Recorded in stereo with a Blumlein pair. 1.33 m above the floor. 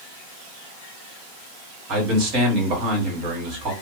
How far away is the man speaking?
About 1.5 m.